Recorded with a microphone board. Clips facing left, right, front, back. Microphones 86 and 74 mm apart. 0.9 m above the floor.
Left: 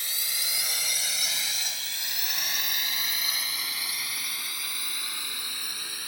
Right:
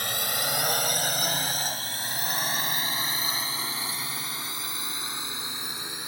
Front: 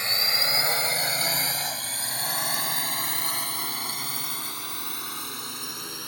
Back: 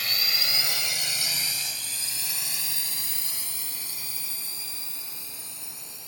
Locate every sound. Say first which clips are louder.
0.0 s a drone: right 9 dB, front 3 dB; 60° right; by 6.1 s 20° right